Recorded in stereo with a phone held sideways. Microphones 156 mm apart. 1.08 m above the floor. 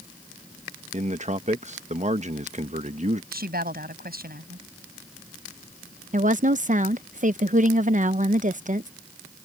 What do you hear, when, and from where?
0.9 s a man speaking: 50° right (ahead or behind)
3.3 s a woman speaking: 90° right
6.1 s a woman speaking: 55° right (ahead or behind)